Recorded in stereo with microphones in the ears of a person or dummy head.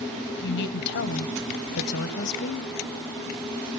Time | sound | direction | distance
0.4 | a woman speaking | 60° left (ahead or behind) | 1.0 m